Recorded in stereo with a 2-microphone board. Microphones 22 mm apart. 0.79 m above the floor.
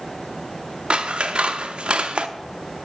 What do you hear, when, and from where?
0.9 s scissors: 55° right (ahead or behind), 0.6 m